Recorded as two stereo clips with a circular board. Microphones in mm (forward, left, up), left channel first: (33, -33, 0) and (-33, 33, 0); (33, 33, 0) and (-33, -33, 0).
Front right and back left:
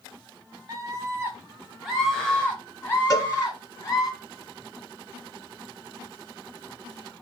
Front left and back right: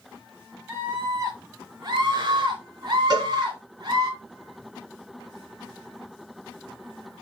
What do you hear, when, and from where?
0.7 s a scream: 160° left, 1.3 m; by 4.1 s 100° right, 2.5 m
3.1 s a cowbell: 100° right, 2 m